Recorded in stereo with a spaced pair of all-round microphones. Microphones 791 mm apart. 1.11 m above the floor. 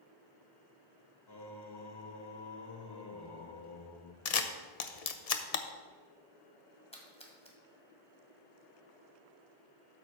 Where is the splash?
10° left (ahead or behind), 1.7 m.